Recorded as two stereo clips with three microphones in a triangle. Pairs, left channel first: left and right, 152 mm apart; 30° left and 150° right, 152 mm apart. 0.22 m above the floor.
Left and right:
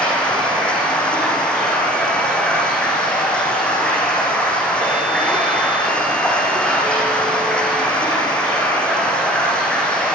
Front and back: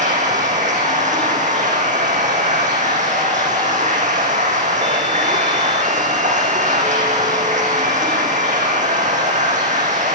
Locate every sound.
0.0 s running water: 175° left, 10 m